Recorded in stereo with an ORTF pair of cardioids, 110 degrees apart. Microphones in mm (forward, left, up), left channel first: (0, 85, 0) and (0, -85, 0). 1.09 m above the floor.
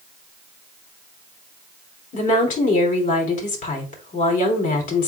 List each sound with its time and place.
2.1 s a woman speaking: 50° left, 4 m